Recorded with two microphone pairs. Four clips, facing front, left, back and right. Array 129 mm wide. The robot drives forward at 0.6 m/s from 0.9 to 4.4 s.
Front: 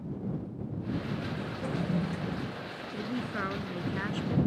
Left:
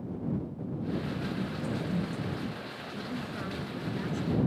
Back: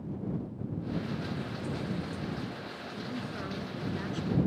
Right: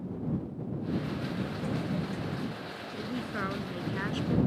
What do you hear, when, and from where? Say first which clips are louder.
1.6 s a toilet flushing: even, front 6 dB; 15° right
2.9 s a man speaking: right 2 dB, front 5 dB; 40° right; by 4.4 s 50° right